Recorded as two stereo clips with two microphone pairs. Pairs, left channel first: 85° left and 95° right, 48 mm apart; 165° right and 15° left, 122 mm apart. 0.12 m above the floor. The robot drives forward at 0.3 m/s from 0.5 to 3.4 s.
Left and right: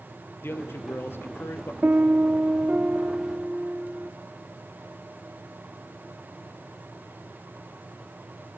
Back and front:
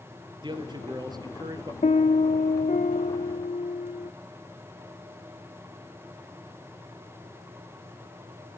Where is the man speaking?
60° left, 2.5 m; by 1.7 s 70° left, 2.5 m.